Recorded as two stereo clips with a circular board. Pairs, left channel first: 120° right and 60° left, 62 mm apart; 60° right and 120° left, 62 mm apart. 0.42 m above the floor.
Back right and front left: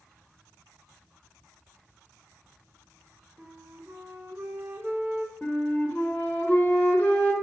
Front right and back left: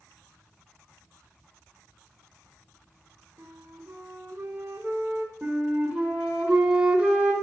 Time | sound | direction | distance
3.4 | a flute | 110° left | 0.6 m
5.4 | a flute | 175° right | 0.7 m